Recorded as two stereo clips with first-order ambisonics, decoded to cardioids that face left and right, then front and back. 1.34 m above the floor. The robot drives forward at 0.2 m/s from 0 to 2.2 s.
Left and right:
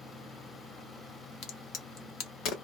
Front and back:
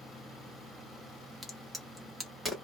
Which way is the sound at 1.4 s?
85° left.